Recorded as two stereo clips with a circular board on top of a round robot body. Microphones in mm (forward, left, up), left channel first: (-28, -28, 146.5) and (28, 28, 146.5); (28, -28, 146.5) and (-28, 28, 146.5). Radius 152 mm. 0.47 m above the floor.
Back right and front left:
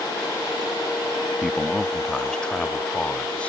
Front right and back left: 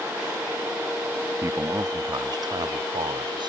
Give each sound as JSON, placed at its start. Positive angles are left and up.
{"t": 1.4, "sound": "a man speaking", "azimuth_deg": 135}